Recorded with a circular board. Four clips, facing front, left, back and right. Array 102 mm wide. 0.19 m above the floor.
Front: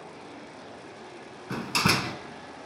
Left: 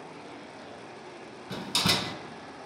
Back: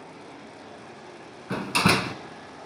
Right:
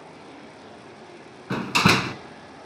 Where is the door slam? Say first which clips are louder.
Right 10 dB, back 4 dB; 100° right, 1.3 m.